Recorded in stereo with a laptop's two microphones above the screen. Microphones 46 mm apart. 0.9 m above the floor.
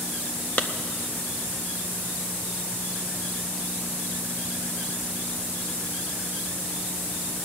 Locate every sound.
0.6 s a clap: 40° left (ahead or behind), 0.6 m